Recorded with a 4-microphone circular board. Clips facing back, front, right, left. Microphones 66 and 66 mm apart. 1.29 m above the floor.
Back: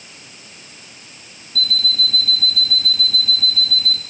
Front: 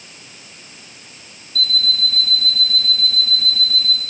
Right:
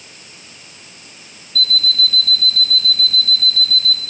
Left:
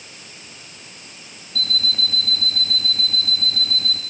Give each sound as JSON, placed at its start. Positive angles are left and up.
{"t": 1.6, "sound": "an alarm clock", "azimuth_deg": 90, "distance_m": 0.6}